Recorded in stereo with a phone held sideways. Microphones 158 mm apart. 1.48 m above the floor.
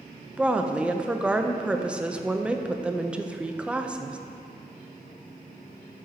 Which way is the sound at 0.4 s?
5° right (ahead or behind).